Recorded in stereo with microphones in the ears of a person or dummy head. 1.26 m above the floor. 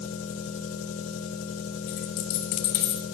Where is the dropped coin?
45° left (ahead or behind), 1.4 m.